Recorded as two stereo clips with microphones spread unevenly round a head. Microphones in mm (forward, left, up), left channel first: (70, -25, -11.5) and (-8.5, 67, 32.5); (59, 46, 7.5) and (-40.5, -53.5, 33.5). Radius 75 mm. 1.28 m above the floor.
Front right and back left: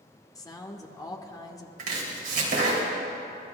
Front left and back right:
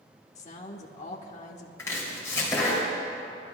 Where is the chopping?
115° left, 3 m.